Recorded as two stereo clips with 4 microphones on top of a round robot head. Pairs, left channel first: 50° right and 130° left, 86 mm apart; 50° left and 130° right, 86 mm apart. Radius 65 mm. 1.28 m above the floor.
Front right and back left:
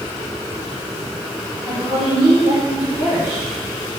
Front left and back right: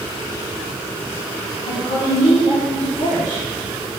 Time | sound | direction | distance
1.6 | a woman speaking | 60° left | 2.5 m